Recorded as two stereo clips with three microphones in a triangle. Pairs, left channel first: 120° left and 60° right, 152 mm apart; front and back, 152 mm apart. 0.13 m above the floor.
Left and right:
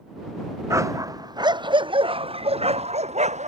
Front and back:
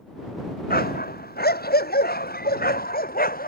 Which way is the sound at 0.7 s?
10° left.